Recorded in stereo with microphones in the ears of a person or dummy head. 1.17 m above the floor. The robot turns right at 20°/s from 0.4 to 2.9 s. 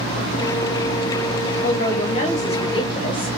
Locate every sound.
1.6 s a man speaking: 45° left (ahead or behind), 1.0 m; by 3.3 s 25° left (ahead or behind), 1.0 m